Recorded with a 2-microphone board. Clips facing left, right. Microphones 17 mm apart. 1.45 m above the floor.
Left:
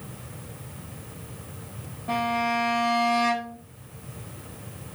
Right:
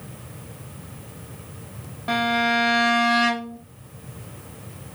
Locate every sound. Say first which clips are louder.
2.1 s a violin: right 4 dB; 50° right (ahead or behind), 0.7 m